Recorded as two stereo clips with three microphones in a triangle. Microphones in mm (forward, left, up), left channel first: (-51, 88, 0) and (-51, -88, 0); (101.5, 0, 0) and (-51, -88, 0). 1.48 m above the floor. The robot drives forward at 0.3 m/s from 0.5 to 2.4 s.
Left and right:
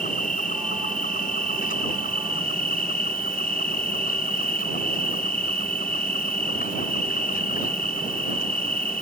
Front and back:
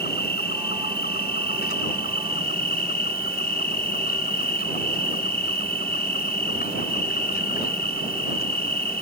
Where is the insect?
50° left; by 9.0 s 55° left.